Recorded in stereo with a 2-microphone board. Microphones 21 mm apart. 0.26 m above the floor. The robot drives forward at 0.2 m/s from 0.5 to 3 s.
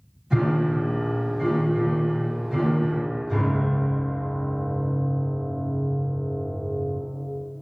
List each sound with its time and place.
0.3 s a piano: 30° right (ahead or behind), 1.9 m; by 7.0 s 25° right (ahead or behind), 2 m